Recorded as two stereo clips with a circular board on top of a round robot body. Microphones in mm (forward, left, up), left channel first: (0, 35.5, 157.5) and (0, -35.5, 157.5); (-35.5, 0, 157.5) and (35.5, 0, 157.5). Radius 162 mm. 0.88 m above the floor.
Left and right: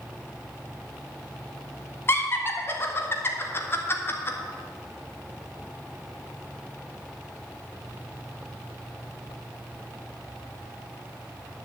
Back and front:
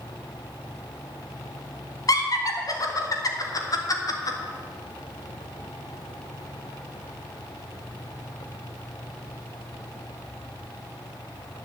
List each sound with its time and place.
2.1 s laughter: 145° left, 1.9 m